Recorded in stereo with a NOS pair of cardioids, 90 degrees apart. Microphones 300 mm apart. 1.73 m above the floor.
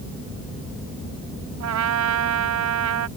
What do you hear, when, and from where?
1.6 s a trumpet: 65° right